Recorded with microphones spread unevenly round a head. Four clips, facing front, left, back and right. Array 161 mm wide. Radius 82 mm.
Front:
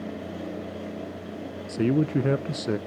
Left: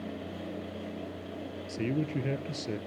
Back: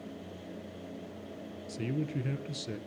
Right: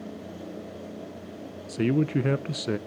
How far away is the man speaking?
About 0.7 m.